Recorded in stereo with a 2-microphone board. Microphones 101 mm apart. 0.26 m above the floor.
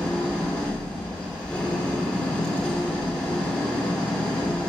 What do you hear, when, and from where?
0.0 s an engine running: 10° left (ahead or behind), 1.8 m